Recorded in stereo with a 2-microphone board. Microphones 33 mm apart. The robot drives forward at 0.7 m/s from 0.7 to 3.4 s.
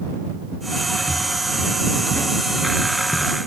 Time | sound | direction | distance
1.1 | footsteps | 60° left (ahead or behind) | 4.5 m